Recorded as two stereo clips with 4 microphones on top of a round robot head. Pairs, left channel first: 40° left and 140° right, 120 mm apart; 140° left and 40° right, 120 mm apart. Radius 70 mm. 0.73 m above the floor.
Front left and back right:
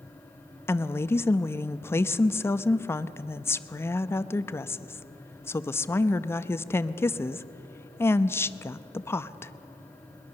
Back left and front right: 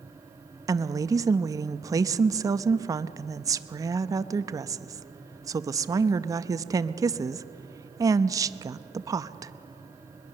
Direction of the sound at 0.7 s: 10° right.